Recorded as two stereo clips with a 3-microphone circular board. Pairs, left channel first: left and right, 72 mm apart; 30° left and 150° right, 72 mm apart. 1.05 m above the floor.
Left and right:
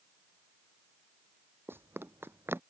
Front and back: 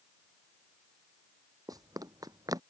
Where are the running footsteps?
140° right.